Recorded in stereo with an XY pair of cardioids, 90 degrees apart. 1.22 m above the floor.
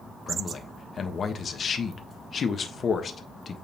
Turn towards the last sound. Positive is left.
turn(degrees=50)